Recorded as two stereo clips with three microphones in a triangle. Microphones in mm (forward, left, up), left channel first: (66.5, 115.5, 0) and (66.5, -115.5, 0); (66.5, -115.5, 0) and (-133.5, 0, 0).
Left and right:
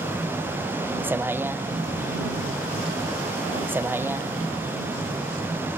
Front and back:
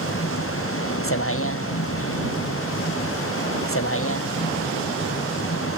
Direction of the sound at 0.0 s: 10° right.